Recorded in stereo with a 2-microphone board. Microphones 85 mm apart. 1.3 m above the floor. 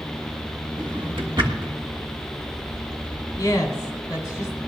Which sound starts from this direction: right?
A drawer, at 0.8 s.